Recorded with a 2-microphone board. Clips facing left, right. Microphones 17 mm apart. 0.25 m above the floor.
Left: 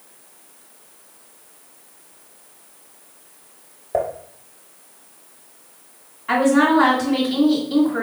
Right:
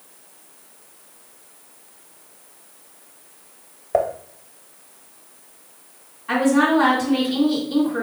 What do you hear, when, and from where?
3.9 s dishes clattering: 25° right (ahead or behind), 0.7 m
6.3 s a woman speaking: 20° left (ahead or behind), 2 m